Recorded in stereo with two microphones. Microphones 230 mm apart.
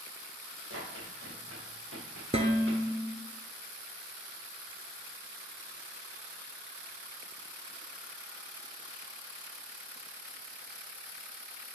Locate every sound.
0.7 s running footsteps: 65° right (ahead or behind), 4.5 m
2.3 s dishes clattering: 25° right (ahead or behind), 1.2 m